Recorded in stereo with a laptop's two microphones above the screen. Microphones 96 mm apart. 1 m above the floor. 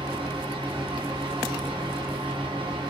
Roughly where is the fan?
Right.